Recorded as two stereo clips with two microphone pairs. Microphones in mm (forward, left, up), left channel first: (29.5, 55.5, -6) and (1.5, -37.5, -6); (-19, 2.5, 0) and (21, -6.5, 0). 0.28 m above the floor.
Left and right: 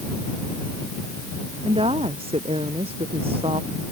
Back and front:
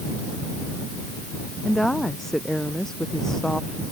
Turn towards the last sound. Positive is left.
turn(degrees=-115)